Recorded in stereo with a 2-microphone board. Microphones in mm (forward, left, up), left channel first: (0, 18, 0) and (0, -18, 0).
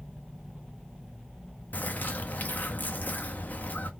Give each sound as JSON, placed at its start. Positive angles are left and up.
{"t": 1.7, "sound": "a bird", "side_deg": 55, "distance_m": 0.7}